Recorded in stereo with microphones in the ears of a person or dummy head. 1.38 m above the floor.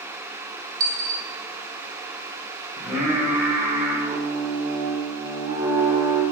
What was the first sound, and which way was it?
A dropped coin, 25° right (ahead or behind).